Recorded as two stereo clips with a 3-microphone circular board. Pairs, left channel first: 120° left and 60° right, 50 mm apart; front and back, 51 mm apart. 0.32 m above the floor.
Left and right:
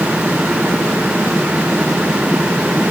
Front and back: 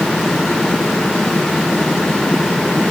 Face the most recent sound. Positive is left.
No sound to turn to.